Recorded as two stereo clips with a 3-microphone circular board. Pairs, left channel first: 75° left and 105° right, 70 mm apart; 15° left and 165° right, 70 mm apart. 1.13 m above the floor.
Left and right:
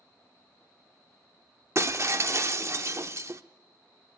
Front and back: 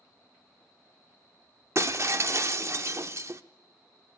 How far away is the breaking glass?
About 0.9 m.